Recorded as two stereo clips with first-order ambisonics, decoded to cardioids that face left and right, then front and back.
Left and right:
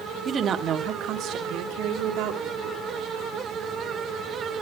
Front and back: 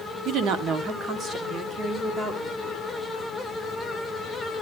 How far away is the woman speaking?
About 1.2 m.